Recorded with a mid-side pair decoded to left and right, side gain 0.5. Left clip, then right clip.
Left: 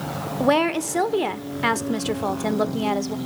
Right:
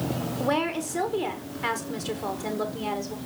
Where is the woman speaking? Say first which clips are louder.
Left 7 dB; 45° left, 1.4 m.